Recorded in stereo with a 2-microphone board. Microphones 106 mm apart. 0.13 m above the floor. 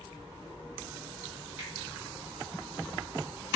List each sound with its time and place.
1.6 s a finger snap: 20° right (ahead or behind), 1.4 m